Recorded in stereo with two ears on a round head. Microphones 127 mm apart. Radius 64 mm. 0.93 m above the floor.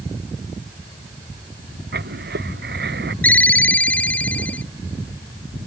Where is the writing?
75° right (ahead or behind).